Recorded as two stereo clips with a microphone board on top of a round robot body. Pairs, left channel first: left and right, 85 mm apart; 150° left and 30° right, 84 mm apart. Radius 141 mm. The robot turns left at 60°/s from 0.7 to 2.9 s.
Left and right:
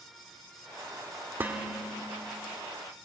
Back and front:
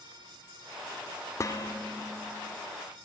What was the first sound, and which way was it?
Dishes clattering, 155° right.